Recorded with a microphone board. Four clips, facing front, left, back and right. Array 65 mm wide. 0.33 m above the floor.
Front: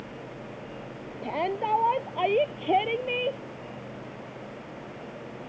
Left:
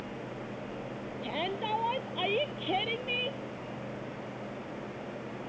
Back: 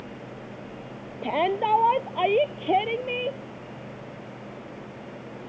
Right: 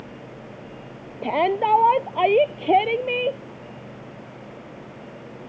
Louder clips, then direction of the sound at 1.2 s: Right 14 dB, back 4 dB; 105° right.